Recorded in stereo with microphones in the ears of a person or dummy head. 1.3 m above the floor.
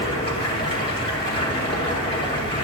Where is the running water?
25° left (ahead or behind), 3 m.